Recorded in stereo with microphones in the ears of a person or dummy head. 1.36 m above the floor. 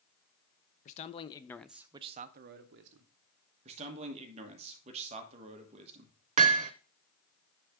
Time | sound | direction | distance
0.8 | a man speaking | 40° left (ahead or behind) | 0.8 m
3.6 | a man speaking | 35° right (ahead or behind) | 1.3 m
6.4 | hammering | 40° right (ahead or behind) | 0.6 m